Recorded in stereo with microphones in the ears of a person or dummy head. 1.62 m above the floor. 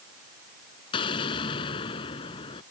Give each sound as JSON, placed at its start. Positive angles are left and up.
{"t": 0.9, "sound": "an explosion", "side_deg": 30}